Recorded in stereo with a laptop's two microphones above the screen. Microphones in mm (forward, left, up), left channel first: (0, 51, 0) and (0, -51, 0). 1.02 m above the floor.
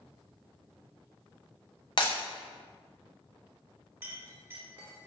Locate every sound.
2.0 s breaking glass: 50° left (ahead or behind), 0.7 m
4.0 s a clink: 25° right (ahead or behind), 0.8 m